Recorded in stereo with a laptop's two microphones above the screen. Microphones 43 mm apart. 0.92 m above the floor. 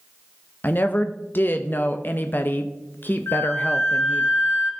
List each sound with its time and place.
0.6 s a woman speaking: 45° left (ahead or behind), 0.6 m
3.3 s a flute: 70° left (ahead or behind), 1.5 m